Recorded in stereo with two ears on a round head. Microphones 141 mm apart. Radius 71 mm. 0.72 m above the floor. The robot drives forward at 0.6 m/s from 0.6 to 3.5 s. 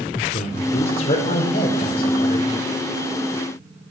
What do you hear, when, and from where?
0.3 s a man speaking: 45° left (ahead or behind), 2.5 m; by 2.4 s 35° left (ahead or behind), 3.5 m